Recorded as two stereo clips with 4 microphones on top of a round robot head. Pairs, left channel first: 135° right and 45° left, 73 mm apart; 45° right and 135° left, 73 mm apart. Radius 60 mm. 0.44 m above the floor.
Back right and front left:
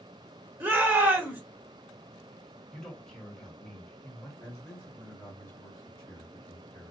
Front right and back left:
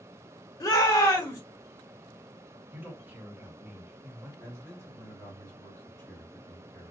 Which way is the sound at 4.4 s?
80° right.